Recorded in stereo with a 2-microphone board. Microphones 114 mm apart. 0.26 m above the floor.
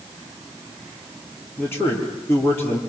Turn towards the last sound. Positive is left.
turn(degrees=20)  # may be behind; listen again after turning